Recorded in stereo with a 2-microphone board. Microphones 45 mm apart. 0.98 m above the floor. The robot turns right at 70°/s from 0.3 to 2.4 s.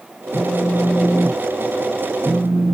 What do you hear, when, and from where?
0.3 s a phone buzzing: 75° right, 1.8 m; by 2.7 s 70° left, 1.8 m